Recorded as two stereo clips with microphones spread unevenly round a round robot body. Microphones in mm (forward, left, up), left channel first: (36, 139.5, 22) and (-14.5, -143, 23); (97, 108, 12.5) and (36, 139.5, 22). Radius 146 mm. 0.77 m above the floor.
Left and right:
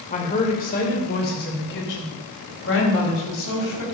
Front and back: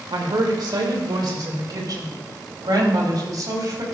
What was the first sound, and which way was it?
A woman speaking, 145° left.